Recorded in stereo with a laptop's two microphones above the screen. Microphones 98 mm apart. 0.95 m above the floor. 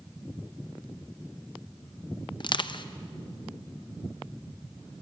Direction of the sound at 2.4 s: 50° left (ahead or behind).